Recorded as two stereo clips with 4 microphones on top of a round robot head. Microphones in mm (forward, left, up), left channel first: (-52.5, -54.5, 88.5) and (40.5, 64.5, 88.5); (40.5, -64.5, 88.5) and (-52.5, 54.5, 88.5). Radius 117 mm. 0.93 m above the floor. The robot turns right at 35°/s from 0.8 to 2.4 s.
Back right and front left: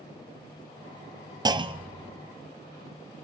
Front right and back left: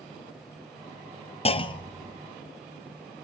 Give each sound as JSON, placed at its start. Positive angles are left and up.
{"t": 1.4, "sound": "a clunk", "azimuth_deg": -10, "distance_m": 1.4}